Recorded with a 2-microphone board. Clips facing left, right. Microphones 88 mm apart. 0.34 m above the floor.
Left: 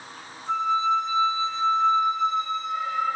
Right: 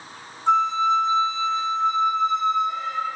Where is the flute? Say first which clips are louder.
Right 4 dB; 75° right (ahead or behind), 4.5 m.